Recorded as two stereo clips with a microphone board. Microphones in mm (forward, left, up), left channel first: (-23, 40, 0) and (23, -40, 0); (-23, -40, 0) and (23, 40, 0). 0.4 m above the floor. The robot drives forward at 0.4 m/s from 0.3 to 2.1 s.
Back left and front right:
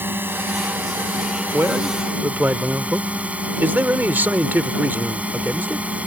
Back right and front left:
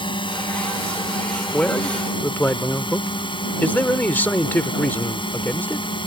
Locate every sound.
0.0 s a drone: 125° right; by 6.1 s 135° right
1.5 s a man speaking: 60° right; by 5.9 s 85° right